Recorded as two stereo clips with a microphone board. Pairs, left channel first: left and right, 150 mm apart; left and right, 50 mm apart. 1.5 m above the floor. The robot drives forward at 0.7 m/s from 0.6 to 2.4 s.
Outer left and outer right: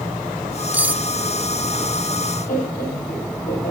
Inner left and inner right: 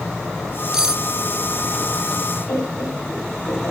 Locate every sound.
0.7 s cutlery clinking: 10° right (ahead or behind), 0.6 m
2.5 s laughter: 70° left (ahead or behind), 8.5 m